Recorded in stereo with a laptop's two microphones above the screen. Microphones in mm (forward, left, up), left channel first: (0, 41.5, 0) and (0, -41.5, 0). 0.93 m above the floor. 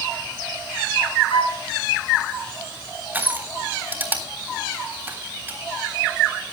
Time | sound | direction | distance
1.3 | a flute | 85° left | 3 m
3.1 | crushing | 20° right (ahead or behind) | 3 m